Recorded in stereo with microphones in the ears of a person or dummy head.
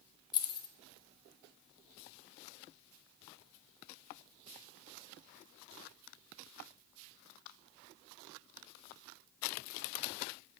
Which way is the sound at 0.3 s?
30° left (ahead or behind).